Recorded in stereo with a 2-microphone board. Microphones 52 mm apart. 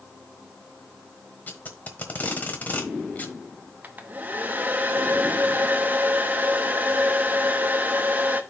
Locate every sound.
1.5 s tape being pulled: 35° left (ahead or behind), 1.4 m
3.8 s a hair dryer: 35° right (ahead or behind), 0.8 m